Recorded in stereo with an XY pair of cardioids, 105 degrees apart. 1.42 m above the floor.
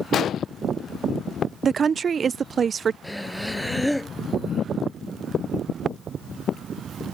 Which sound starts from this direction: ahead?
Breathing, at 3.0 s.